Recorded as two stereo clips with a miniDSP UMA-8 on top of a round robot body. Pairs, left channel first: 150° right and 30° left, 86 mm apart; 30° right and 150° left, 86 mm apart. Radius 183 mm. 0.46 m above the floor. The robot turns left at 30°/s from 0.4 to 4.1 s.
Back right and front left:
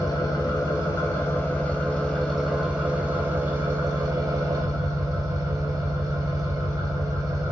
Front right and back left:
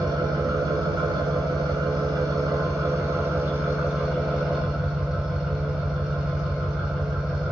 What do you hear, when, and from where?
0.0 s an engine running: straight behind, 0.9 m; by 7.5 s 70° left, 0.9 m